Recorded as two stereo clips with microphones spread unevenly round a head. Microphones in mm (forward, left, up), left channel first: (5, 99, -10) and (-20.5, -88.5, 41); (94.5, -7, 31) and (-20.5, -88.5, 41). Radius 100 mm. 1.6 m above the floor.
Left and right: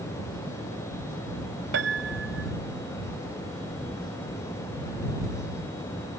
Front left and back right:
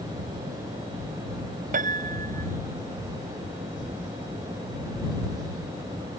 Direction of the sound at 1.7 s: 125° right.